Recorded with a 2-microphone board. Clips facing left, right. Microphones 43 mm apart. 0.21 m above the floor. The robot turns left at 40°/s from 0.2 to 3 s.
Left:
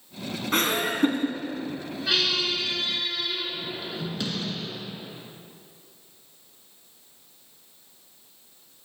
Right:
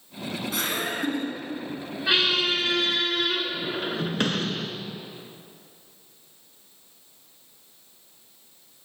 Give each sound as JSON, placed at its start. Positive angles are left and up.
{"t": 0.5, "sound": "laughter", "azimuth_deg": 90, "distance_m": 1.8}
{"t": 2.1, "sound": "a squeak", "azimuth_deg": -25, "distance_m": 0.7}